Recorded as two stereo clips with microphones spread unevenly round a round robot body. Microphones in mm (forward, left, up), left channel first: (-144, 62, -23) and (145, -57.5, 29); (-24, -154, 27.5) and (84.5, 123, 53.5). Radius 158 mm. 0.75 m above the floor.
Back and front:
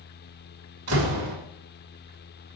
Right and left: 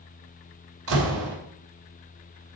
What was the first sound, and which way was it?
A door slam, 25° left.